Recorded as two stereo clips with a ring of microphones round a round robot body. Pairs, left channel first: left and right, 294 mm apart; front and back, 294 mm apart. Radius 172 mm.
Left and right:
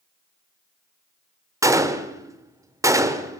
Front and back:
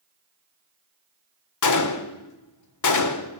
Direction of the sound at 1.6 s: 10° right.